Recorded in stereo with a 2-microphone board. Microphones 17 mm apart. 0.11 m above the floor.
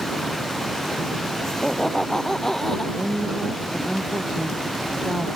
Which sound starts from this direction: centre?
A woman speaking, at 3.0 s.